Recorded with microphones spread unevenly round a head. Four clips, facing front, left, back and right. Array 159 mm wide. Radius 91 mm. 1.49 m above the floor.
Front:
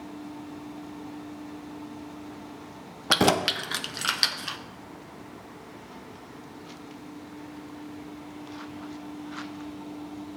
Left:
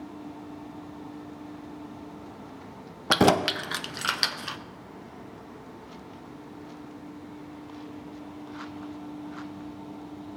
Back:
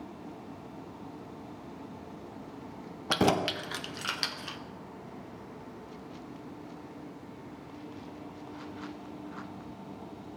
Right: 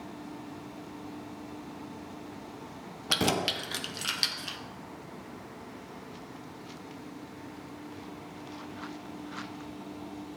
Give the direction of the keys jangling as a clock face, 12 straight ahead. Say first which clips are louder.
Left 8 dB, front 4 dB; 10 o'clock.